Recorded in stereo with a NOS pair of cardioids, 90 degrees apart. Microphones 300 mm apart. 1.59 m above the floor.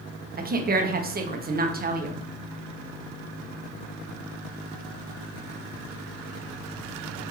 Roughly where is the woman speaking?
Ahead right.